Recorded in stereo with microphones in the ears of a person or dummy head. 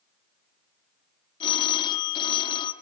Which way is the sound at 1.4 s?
30° left (ahead or behind).